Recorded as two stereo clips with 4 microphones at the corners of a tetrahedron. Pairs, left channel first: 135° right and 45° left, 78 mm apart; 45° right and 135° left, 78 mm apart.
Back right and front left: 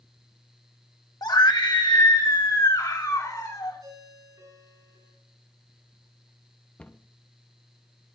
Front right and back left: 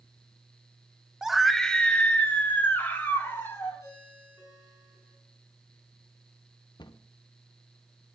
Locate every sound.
1.2 s a scream: 140° right, 0.9 m; by 3.8 s 105° right, 3 m
3.8 s a ringtone: 5° left, 10 m
6.8 s a cupboard door: 60° right, 0.6 m